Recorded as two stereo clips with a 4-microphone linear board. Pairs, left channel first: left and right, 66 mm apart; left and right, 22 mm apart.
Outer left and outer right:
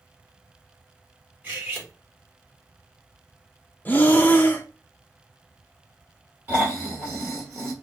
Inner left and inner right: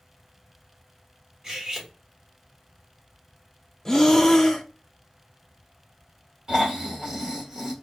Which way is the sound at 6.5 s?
30° right (ahead or behind).